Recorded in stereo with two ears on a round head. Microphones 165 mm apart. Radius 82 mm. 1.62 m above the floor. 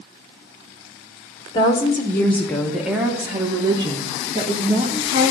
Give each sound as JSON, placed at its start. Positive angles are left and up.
{"t": 1.5, "sound": "a woman speaking", "side_deg": 25, "distance_m": 1.4}